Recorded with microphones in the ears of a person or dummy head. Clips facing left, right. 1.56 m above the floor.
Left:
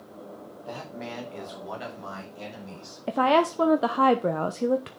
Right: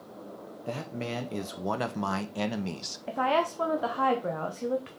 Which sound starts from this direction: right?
A man speaking, at 0.7 s.